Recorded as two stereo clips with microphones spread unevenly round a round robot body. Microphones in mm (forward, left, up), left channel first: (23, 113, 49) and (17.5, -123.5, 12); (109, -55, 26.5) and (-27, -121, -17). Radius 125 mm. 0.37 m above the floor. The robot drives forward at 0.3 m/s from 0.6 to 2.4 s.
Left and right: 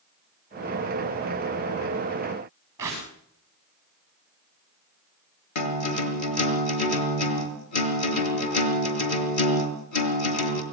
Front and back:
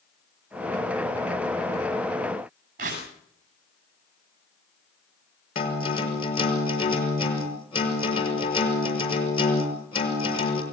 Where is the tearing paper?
170° right, 9.5 m.